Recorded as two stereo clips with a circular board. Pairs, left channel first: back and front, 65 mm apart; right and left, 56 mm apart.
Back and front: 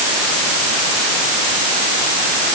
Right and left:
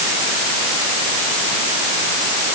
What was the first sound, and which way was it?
Only background noise.